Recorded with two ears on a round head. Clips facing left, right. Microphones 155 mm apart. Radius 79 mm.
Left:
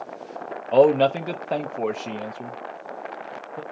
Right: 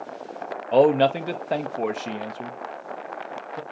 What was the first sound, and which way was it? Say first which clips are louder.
A man speaking: left 1 dB; 5° right (ahead or behind).